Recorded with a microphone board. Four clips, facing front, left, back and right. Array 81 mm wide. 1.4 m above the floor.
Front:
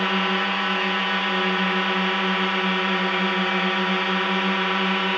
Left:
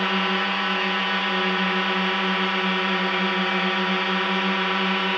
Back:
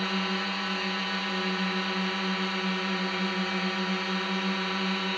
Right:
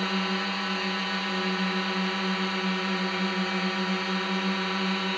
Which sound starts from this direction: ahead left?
A drone, at 0.0 s.